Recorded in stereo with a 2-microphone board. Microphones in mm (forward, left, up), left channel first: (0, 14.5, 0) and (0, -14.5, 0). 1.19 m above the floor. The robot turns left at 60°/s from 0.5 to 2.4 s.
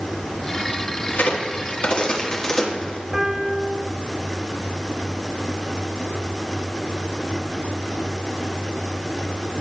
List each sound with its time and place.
1.1 s a crack: 80° left, 1.5 m; by 3.0 s 25° left (ahead or behind), 1.5 m
3.1 s a piano: 20° right (ahead or behind), 2 m